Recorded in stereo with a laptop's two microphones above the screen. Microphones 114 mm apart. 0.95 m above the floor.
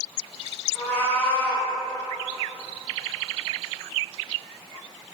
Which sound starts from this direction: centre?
A cat meowing, at 0.8 s.